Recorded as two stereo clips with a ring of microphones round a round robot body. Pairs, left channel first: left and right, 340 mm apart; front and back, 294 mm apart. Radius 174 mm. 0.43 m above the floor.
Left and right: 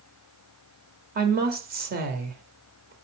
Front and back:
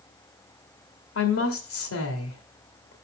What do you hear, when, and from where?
1.1 s a woman speaking: 30° right, 1.6 m